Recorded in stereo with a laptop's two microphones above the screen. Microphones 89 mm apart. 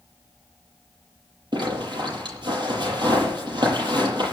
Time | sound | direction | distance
1.5 | a zipper | 55° right (ahead or behind) | 8 m